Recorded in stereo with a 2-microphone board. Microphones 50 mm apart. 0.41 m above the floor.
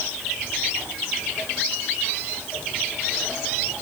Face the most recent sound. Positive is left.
No sound to turn to.